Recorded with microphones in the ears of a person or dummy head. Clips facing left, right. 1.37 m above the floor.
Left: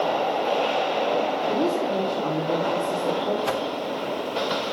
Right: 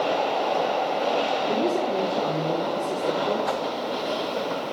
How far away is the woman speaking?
About 2.5 m.